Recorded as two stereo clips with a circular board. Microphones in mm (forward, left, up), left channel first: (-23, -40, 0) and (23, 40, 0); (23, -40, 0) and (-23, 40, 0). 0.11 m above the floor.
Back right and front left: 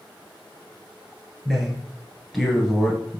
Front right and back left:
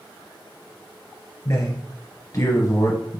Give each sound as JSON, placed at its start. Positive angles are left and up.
{"t": 1.4, "sound": "a man speaking", "azimuth_deg": -25, "distance_m": 1.6}